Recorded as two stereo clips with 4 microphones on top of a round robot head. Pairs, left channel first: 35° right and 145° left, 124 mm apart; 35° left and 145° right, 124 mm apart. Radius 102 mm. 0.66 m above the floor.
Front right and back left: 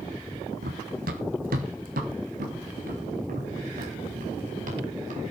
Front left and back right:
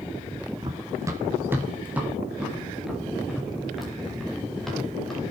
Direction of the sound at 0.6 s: 155° left.